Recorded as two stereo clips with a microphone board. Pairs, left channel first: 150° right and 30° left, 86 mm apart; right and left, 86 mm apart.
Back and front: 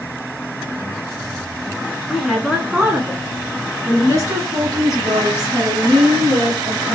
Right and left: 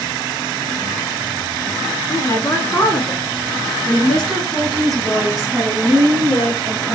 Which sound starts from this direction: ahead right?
A woman speaking, at 2.1 s.